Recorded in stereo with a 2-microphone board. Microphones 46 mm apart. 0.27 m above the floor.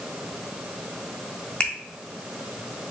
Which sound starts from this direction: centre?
A finger snap, at 1.6 s.